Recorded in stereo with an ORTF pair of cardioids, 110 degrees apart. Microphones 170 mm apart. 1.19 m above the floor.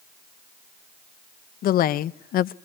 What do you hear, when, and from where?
1.6 s a woman speaking: 60° left, 0.8 m